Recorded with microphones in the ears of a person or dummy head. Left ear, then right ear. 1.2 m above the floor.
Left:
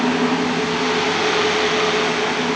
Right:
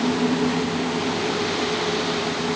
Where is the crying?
No crying in this recording.